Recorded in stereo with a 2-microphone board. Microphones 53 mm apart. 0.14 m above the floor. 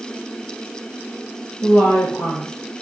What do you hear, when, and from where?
1.6 s a woman speaking: 40° left (ahead or behind), 3 m; by 2.8 s 55° left (ahead or behind), 2.5 m